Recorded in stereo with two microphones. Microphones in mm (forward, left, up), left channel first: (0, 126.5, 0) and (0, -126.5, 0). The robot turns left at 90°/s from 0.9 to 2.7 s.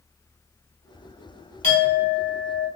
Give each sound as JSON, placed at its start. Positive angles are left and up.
{"t": 1.6, "sound": "a clink", "azimuth_deg": 145, "distance_m": 0.7}